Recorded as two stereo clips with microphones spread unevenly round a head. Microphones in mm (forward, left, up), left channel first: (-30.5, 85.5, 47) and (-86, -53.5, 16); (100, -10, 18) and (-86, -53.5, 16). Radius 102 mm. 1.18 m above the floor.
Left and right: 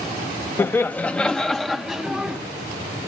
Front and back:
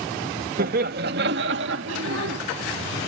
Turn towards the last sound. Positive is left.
turn(degrees=165)